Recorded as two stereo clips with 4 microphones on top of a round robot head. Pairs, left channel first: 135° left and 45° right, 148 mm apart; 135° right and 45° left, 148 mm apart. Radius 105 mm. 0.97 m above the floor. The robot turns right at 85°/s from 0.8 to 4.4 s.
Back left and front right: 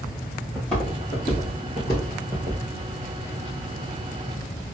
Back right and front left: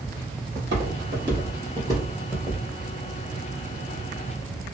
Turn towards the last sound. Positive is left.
turn(degrees=125)